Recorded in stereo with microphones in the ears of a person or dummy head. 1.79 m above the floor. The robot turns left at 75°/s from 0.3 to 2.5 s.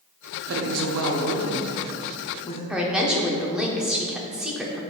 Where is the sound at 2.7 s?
5° right (ahead or behind), 0.6 m.